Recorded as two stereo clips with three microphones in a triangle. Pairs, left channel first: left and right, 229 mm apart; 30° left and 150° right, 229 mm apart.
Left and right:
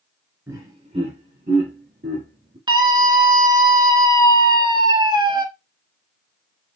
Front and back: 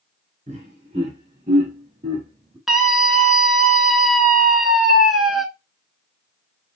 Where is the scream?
65° right, 1.1 m.